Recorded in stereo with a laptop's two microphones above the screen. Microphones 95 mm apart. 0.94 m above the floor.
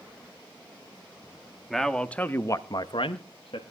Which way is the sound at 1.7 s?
Centre (ahead or behind).